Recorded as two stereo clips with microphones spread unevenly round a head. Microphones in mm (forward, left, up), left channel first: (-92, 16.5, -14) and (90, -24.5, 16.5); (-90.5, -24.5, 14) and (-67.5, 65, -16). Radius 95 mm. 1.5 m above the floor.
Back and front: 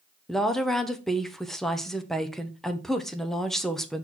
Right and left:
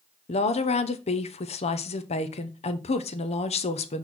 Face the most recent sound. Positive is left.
turn(degrees=-105)